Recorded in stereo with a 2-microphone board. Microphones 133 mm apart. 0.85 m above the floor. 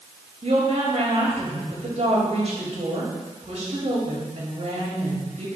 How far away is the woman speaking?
About 5 m.